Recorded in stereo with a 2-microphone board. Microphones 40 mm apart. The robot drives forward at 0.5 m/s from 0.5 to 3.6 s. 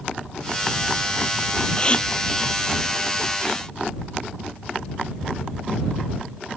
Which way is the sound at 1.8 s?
25° left (ahead or behind).